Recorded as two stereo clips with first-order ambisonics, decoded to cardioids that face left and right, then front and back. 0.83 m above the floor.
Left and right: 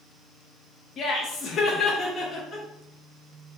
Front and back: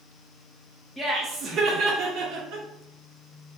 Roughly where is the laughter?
Left.